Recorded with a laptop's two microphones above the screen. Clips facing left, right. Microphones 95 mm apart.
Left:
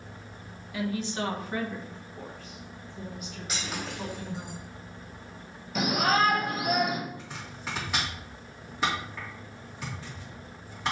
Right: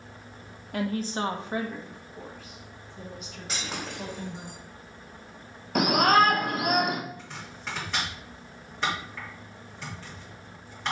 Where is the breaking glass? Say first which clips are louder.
Right 1 dB; 35° right (ahead or behind), 3 m.